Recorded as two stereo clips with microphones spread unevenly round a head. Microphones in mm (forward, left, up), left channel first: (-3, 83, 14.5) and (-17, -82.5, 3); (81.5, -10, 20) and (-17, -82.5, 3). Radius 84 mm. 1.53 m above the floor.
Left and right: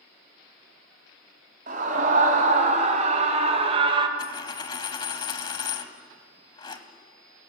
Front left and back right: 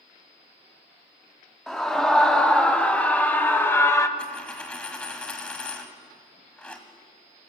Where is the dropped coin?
90° left, 1.5 m.